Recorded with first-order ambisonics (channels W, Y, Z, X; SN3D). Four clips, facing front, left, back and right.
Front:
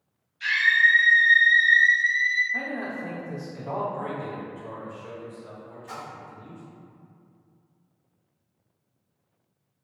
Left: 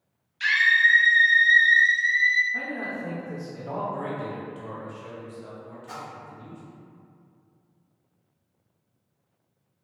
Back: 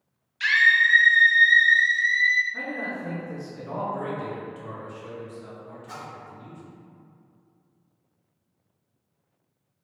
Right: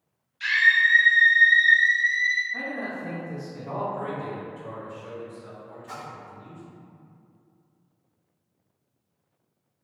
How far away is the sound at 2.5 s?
About 1.9 m.